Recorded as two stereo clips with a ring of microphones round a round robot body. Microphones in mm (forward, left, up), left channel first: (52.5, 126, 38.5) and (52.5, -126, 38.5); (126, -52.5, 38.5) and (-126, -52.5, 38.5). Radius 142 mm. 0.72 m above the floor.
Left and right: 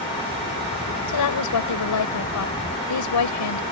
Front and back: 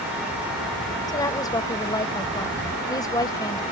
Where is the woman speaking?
80° left.